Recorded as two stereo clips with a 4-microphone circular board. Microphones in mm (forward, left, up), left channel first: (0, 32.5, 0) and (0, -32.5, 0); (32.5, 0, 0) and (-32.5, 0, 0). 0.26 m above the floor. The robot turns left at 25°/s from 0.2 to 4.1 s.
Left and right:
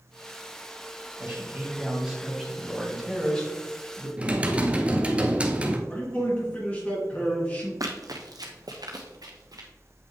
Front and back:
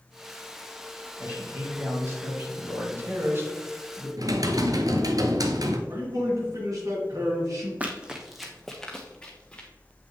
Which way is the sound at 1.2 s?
145° right.